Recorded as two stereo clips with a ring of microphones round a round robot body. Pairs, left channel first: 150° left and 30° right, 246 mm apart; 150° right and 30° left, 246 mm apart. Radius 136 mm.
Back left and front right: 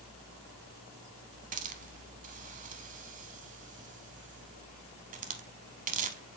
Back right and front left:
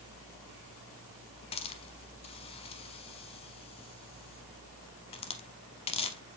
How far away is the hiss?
About 0.7 m.